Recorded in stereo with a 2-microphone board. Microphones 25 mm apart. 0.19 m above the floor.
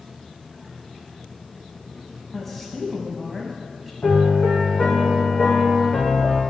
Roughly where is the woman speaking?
Centre.